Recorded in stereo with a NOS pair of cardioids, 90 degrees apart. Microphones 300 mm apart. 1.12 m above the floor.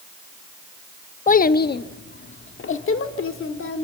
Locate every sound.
1.3 s a child speaking: 25° left, 0.9 m; by 3.8 s 45° left, 2.5 m